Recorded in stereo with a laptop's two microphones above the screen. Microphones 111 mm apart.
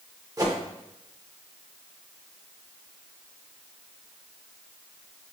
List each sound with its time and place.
0.4 s a whoosh: 35° right (ahead or behind), 0.7 m